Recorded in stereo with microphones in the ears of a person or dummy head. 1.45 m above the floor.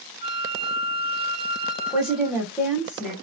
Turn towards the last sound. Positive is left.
turn(degrees=-5)  # may be behind; listen again after turning